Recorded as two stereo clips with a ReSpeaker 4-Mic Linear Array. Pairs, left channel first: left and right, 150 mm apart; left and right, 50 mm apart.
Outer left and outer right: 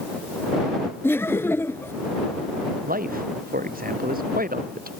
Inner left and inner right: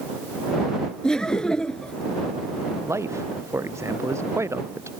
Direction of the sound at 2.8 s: 75° right (ahead or behind).